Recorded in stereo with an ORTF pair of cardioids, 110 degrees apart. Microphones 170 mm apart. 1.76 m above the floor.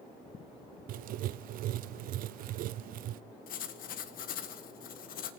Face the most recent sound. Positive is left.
turn(degrees=60)